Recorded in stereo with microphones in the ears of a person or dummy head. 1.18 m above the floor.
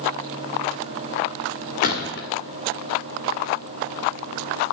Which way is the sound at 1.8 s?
45° left (ahead or behind).